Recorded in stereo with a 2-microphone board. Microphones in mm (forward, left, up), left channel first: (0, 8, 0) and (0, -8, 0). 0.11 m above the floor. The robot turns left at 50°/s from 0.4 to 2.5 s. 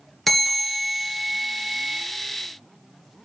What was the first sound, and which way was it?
A bell, 25° left.